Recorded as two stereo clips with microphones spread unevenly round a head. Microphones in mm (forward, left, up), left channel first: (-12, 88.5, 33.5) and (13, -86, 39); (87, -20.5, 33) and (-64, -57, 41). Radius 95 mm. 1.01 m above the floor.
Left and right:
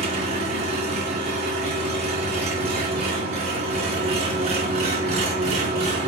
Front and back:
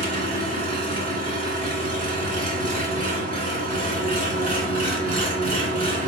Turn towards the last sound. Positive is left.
turn(degrees=-135)